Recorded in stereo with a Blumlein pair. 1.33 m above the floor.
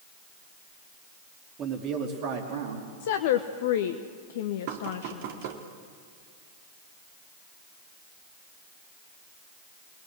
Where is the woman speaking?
55° left, 1.0 m.